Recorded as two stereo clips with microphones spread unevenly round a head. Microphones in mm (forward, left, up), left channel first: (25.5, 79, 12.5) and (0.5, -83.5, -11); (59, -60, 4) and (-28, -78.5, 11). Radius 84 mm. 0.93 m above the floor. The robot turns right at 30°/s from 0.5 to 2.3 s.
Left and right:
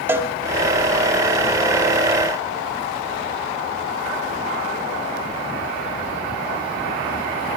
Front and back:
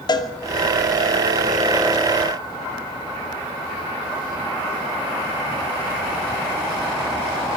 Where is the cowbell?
25° right, 2.5 m.